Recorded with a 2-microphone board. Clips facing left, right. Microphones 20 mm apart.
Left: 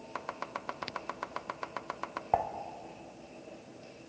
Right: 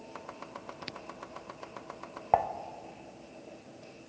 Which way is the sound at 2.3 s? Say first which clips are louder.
Right 4 dB; 20° right (ahead or behind).